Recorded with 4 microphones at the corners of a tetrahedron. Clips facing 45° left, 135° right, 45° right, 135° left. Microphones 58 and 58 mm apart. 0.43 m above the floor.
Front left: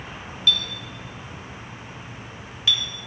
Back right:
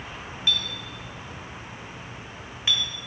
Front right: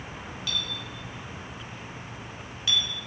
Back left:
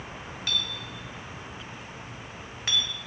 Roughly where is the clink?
Behind.